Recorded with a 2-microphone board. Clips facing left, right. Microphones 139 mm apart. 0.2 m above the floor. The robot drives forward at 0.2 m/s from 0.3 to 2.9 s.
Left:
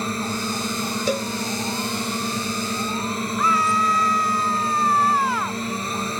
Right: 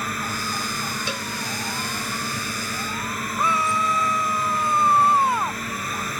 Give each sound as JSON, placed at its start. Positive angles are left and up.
{"t": 0.0, "sound": "a drone", "side_deg": 25}
{"t": 1.1, "sound": "a cowbell", "side_deg": 45}
{"t": 3.4, "sound": "a scream", "side_deg": -25}